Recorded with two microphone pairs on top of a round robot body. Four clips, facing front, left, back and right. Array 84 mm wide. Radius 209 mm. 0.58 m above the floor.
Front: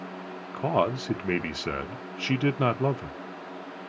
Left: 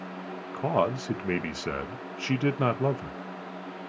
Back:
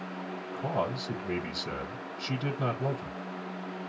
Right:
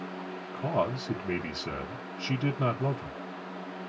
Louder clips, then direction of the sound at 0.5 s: Left 3 dB, front 7 dB; 40° left.